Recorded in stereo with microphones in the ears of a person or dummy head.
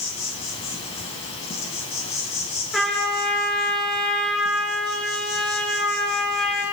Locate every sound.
0.0 s an insect: 30° left (ahead or behind), 3.5 m
2.7 s a trumpet: 5° left (ahead or behind), 5.5 m